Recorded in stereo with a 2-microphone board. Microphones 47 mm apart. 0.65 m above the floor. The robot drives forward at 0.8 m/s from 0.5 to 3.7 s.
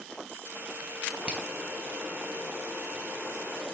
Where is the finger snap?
25° right (ahead or behind), 2.5 m.